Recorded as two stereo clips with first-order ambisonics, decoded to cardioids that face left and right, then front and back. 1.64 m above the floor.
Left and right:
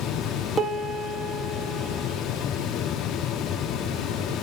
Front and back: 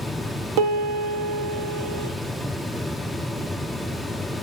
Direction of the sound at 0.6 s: 170° right.